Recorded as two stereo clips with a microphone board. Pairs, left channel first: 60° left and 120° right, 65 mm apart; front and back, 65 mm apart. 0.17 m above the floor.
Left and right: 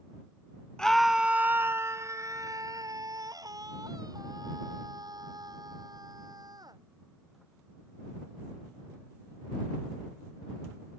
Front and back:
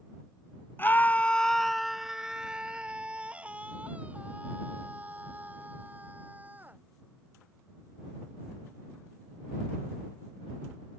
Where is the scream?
10° right; by 6.8 s 115° right.